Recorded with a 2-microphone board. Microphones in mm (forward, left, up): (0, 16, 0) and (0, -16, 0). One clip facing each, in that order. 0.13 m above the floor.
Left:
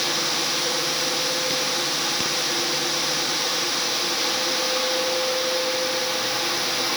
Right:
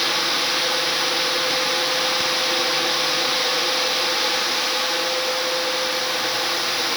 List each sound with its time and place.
Only background noise.